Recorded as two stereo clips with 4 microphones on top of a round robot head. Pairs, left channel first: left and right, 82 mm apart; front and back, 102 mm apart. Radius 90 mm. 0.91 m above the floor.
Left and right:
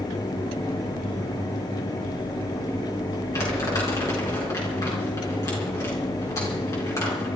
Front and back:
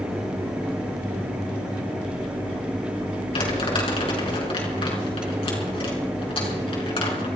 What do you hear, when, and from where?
3.3 s crumpling: 30° left, 5 m